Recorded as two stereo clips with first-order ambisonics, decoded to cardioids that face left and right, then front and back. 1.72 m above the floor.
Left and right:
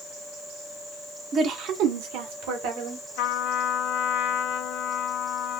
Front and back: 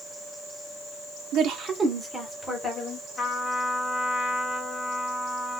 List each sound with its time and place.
1.3 s a woman speaking: 145° right, 0.8 m; by 3.1 s 75° right, 2.0 m
3.2 s a trumpet: 70° left, 0.7 m